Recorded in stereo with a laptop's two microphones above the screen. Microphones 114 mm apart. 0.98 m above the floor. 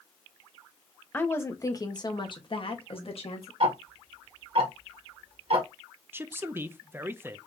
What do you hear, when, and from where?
1.1 s a woman speaking: 15° left (ahead or behind), 1.1 m; by 3.5 s 65° left (ahead or behind), 1.9 m
3.6 s ticking: 55° right (ahead or behind), 1.7 m
6.1 s a man speaking: 20° right (ahead or behind), 0.5 m